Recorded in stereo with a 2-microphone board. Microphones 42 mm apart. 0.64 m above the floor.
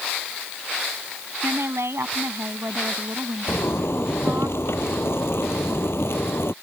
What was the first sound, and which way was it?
A woman speaking, 80° right.